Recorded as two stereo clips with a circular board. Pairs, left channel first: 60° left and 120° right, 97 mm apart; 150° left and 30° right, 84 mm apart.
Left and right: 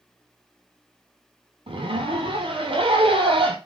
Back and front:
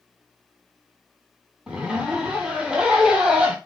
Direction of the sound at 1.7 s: 110° right.